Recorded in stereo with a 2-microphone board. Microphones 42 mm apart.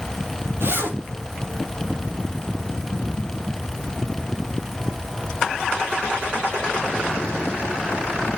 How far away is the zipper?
About 3 m.